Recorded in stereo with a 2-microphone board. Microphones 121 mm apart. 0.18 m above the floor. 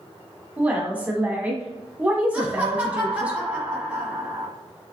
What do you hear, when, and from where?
0.6 s a woman speaking: 15° right (ahead or behind), 1.0 m
2.3 s laughter: 15° right (ahead or behind), 1.0 m